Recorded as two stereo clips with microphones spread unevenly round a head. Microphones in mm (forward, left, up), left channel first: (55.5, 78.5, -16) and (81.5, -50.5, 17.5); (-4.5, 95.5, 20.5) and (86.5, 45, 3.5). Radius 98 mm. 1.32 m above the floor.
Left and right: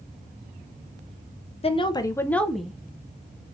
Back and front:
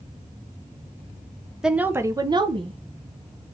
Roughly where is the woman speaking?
Ahead left.